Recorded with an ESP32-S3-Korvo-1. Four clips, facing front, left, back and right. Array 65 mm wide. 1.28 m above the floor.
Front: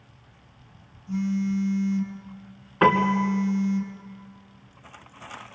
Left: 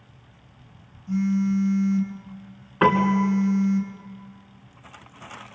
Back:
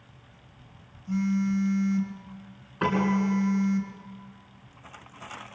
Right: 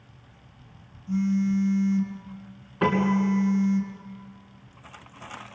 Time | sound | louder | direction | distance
1.1 | a phone buzzing | left 1 dB, even | 155° left | 4.5 m
2.8 | a piano | left 4 dB, front 5 dB | 60° left | 2.5 m